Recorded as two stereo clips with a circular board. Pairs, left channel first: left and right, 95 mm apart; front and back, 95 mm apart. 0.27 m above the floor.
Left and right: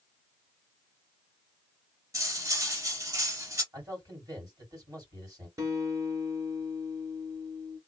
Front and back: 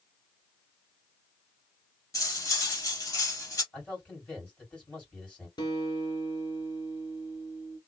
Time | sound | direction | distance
2.1 | cutlery clinking | 45° right | 1.0 m
3.7 | a man speaking | 70° right | 2.0 m
5.6 | a guitar | 35° right | 1.1 m